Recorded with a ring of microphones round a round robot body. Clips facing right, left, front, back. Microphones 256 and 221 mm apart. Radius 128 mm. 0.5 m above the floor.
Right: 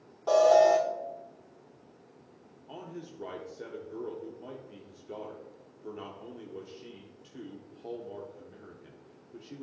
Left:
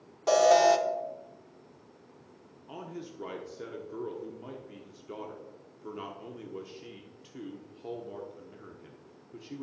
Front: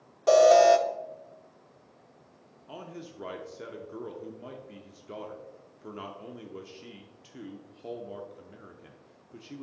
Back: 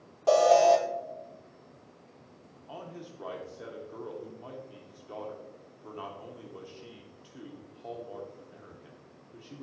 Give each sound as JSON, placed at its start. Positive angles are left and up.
{"t": 0.3, "sound": "an alarm", "azimuth_deg": 60, "distance_m": 0.8}
{"t": 2.7, "sound": "a man speaking", "azimuth_deg": 30, "distance_m": 0.9}